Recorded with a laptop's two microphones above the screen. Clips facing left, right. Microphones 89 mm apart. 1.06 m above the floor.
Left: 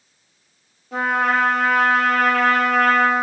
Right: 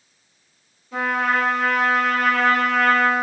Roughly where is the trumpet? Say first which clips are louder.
Left 2 dB; left.